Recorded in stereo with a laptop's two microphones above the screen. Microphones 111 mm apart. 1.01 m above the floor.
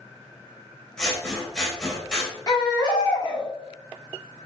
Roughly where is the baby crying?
Left.